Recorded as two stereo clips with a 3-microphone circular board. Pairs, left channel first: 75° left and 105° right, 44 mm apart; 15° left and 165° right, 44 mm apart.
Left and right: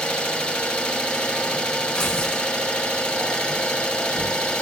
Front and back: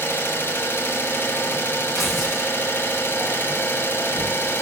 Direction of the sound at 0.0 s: 15° left.